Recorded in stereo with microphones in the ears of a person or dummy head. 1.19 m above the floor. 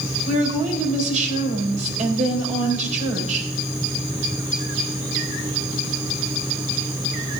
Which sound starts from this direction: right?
A woman speaking, at 0.2 s.